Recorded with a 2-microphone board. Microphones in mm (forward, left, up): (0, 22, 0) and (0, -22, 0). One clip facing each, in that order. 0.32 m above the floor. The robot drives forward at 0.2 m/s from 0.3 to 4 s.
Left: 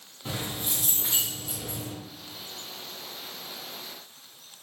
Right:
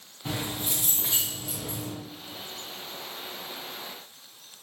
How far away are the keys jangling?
About 1.9 m.